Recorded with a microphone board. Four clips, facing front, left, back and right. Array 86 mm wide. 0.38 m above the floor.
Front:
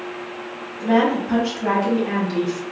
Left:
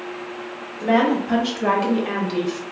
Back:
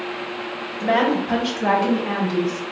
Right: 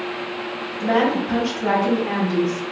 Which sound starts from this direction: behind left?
A woman speaking, at 0.8 s.